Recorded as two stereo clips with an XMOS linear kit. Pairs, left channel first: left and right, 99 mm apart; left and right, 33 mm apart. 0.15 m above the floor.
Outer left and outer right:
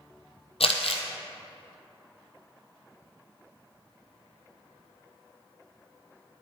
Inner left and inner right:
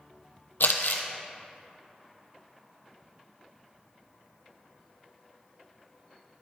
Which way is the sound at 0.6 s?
80° left.